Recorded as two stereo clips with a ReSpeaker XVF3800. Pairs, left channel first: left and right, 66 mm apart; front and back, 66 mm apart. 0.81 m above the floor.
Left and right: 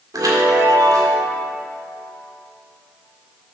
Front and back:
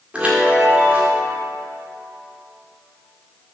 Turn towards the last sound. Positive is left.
turn(degrees=-110)